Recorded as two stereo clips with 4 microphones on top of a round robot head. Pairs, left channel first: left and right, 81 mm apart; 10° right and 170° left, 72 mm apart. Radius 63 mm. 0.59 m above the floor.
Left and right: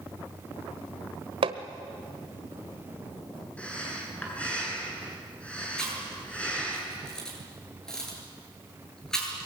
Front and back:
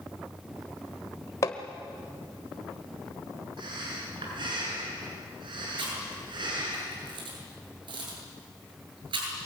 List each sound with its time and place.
1.4 s hammering: 65° right, 1.3 m
3.6 s breathing: 165° left, 8.5 m
5.8 s chewing: 170° left, 9 m